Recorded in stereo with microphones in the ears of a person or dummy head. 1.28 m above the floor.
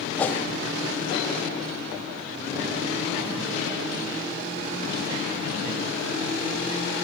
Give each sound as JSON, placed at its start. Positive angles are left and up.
{"t": 0.2, "sound": "a whoosh", "side_deg": 10, "distance_m": 0.7}